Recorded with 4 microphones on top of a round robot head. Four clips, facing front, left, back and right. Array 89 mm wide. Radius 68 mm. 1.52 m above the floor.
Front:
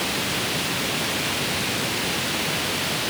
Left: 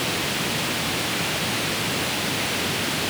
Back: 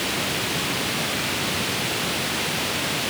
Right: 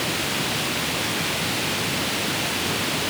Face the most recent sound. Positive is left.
No sound to turn to.